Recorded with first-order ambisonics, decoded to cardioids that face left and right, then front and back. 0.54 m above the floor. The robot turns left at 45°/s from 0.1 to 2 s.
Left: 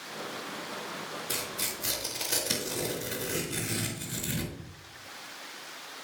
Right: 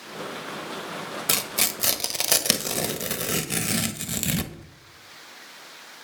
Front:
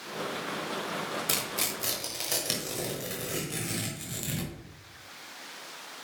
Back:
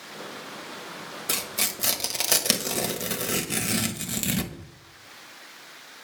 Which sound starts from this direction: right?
Tearing paper, at 1.3 s.